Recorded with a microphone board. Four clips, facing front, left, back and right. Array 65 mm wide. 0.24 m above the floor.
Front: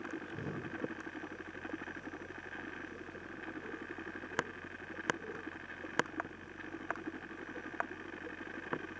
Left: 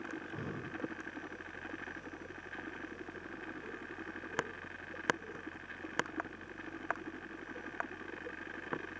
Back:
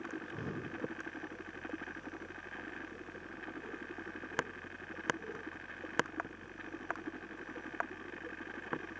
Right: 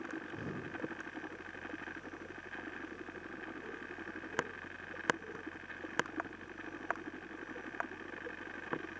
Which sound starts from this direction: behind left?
Breathing, at 0.1 s.